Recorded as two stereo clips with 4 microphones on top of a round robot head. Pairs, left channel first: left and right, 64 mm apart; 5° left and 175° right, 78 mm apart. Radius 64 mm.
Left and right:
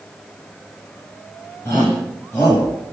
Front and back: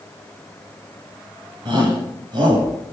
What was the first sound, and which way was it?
A shout, 160° left.